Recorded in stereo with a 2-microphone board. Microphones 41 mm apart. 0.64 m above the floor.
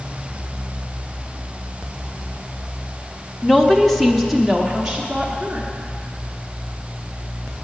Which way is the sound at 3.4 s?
10° left (ahead or behind).